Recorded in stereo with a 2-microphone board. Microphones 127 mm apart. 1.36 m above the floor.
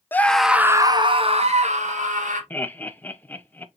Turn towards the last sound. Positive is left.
turn(degrees=15)  # may be behind; listen again after turning